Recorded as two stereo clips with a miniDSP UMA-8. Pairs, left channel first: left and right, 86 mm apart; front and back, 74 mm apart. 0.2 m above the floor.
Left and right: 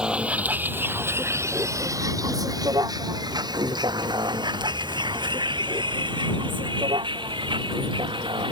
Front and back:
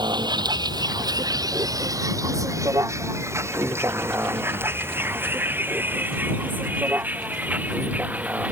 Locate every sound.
0.0 s a vehicle: 170° right; by 8.5 s 110° right